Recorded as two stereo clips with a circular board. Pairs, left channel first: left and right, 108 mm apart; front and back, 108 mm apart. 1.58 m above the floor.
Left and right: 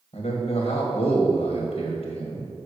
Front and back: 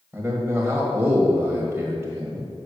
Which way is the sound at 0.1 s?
105° left.